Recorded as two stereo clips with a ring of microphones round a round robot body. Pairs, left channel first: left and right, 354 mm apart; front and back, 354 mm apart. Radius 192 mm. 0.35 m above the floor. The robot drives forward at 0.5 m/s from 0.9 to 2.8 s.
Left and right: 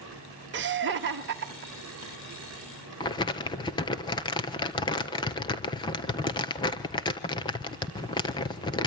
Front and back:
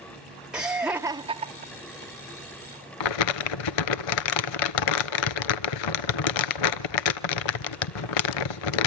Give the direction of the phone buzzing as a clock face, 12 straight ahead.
I don't hear a phone buzzing.